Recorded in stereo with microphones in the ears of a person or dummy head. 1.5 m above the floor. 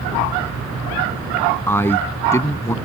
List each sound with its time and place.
1.7 s a man speaking: 10° left (ahead or behind); by 2.8 s 15° left (ahead or behind)